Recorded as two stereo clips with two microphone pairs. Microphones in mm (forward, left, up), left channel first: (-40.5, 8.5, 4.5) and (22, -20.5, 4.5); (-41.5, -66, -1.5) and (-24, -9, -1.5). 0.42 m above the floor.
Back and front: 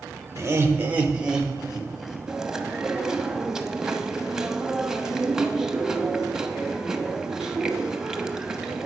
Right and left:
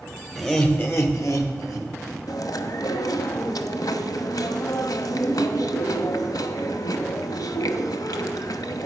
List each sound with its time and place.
0.3 s laughter: 30° right, 1.0 m; by 2.2 s 110° right, 2.5 m
2.3 s chewing: 105° right, 0.8 m